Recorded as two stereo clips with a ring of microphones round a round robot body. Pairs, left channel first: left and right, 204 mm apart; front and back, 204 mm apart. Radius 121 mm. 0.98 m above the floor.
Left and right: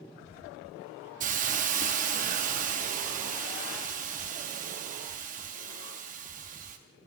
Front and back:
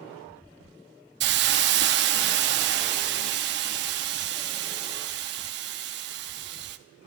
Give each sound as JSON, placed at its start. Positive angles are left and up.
{"t": 1.2, "sound": "a hiss", "azimuth_deg": -150, "distance_m": 0.7}